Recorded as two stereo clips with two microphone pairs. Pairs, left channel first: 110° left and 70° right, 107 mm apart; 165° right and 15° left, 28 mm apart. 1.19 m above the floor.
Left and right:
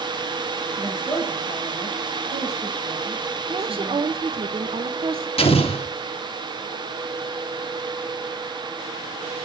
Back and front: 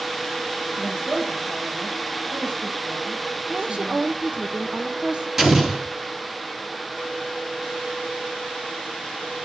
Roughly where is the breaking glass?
I don't hear breaking glass.